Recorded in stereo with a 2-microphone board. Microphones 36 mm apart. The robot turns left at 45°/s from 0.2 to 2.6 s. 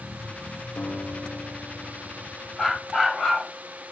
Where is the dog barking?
5° left (ahead or behind), 7 m.